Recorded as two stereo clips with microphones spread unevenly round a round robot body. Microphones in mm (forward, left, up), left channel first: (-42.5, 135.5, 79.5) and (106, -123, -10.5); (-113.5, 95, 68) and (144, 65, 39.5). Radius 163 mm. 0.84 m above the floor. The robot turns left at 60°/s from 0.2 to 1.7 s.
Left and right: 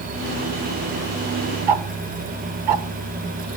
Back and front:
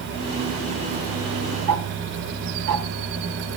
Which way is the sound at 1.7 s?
55° right.